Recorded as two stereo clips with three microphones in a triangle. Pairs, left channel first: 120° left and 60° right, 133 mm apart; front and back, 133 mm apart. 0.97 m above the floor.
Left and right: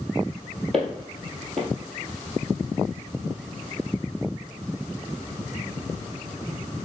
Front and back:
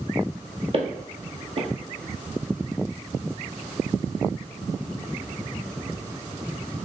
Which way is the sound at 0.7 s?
150° right.